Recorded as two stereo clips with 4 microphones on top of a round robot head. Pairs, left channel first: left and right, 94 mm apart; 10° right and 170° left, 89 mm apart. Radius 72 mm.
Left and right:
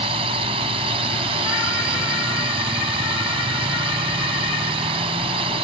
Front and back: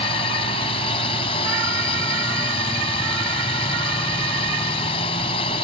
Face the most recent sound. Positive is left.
turn(degrees=-50)